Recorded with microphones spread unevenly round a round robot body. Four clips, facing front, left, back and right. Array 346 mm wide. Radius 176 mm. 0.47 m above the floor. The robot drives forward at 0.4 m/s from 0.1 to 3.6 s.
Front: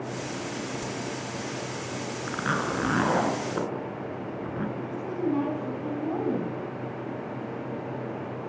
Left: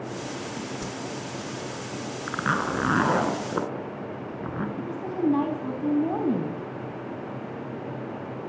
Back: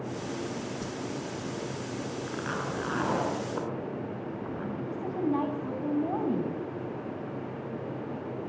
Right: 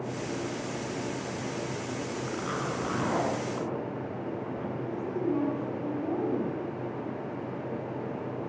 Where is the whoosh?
75° left, 1.4 m; by 1.0 s 80° left, 1.4 m.